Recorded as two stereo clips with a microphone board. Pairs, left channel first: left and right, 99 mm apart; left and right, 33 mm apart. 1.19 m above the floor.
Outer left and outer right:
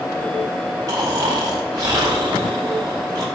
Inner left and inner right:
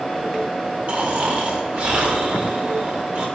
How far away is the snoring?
About 1.8 m.